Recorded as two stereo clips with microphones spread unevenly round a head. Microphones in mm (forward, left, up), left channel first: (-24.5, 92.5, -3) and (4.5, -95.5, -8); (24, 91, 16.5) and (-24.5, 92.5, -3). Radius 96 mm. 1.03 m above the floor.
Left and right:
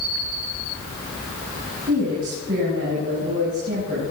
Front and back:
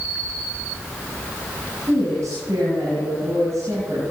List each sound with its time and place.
1.9 s a woman speaking: 120° right, 6.5 m